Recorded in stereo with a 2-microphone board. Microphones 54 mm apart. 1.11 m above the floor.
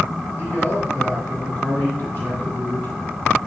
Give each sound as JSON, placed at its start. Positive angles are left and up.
{"t": 0.4, "sound": "a man speaking", "side_deg": 35, "distance_m": 3.5}